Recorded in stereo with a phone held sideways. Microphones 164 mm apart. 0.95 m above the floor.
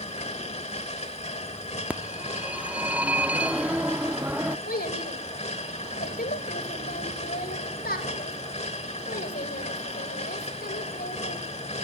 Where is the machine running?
40° left (ahead or behind), 1.8 m.